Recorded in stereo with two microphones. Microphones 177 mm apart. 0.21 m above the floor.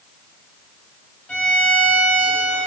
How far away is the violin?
About 1.6 m.